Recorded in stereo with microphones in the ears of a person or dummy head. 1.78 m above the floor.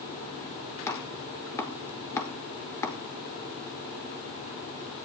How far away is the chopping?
About 1.5 m.